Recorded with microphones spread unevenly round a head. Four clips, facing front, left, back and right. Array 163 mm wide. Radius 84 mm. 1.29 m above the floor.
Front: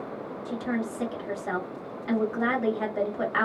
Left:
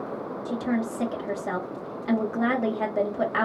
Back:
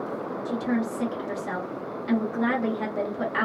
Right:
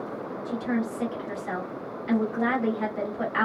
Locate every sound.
0.5 s a woman speaking: 100° left, 1.3 m